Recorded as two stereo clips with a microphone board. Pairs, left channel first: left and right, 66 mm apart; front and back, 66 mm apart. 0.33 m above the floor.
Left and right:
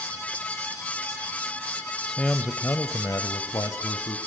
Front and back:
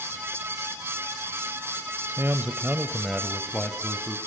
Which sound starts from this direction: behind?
A man speaking, at 2.1 s.